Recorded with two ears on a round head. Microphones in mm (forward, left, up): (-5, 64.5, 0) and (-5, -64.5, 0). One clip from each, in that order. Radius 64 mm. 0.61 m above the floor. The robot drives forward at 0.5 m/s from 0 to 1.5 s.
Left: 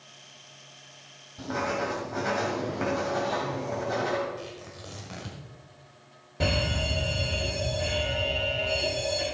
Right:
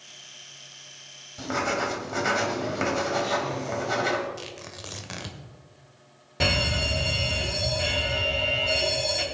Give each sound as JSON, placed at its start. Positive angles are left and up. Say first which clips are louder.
{"t": 1.4, "sound": "writing", "louder": "right 3 dB", "side_deg": -55, "distance_m": 1.8}
{"t": 4.4, "sound": "tearing paper", "louder": "right 2 dB", "side_deg": -60, "distance_m": 1.4}
{"t": 6.4, "sound": "a fire alarm", "louder": "right 4 dB", "side_deg": -55, "distance_m": 3.5}